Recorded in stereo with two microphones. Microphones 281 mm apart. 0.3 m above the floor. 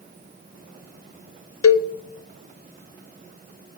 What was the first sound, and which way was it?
A cowbell, 55° left (ahead or behind).